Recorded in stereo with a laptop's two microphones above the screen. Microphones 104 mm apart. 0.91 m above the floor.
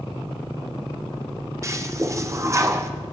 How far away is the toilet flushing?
About 0.5 m.